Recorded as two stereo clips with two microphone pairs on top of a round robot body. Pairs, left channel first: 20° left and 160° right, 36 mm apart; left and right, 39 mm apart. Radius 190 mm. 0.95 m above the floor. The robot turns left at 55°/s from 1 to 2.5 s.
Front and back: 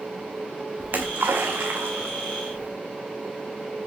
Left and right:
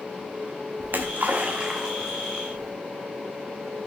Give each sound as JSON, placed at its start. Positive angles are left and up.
{"t": 0.8, "sound": "a splash", "azimuth_deg": -130, "distance_m": 0.6}